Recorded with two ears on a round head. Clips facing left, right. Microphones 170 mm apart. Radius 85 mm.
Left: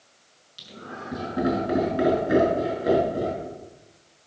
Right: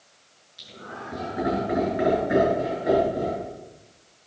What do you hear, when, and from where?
0.6 s laughter: 50° left (ahead or behind), 6.5 m; by 3.5 s 60° left (ahead or behind), 7 m